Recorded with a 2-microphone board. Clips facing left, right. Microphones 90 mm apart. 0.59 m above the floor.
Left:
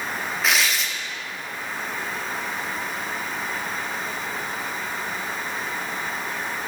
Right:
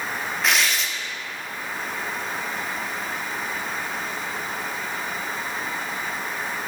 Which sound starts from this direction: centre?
Tearing paper, at 0.4 s.